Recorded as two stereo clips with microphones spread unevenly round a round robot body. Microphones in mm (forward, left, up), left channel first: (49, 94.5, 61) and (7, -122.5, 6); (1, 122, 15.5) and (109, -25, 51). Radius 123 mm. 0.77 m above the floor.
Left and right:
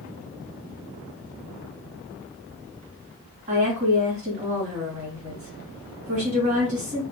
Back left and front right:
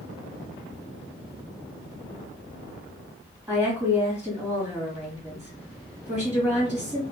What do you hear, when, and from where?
3.5 s a woman speaking: 145° right, 1.5 m